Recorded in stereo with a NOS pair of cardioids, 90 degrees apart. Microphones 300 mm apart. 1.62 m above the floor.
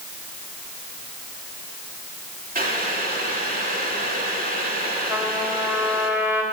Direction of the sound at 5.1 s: 10° right.